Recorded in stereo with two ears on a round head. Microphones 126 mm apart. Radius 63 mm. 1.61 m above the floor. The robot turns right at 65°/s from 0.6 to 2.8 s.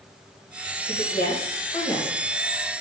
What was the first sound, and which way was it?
A woman speaking, 80° left.